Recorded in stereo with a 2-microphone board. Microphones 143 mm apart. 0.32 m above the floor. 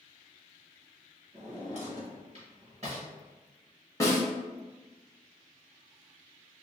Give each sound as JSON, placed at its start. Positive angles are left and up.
{"t": 1.3, "sound": "a drawer", "side_deg": -50, "distance_m": 1.0}
{"t": 4.0, "sound": "a snare drum", "side_deg": 25, "distance_m": 0.8}